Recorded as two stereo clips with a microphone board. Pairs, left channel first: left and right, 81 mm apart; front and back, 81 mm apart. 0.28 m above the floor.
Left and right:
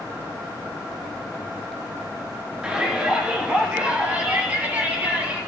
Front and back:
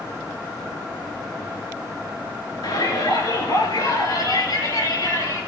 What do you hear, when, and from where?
2.6 s a shout: 15° right, 4 m; by 5.4 s 25° right, 6.5 m